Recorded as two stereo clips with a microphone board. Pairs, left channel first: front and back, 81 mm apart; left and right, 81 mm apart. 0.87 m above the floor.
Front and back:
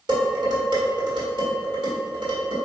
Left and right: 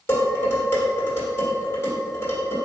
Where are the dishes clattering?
150° left, 1.5 m.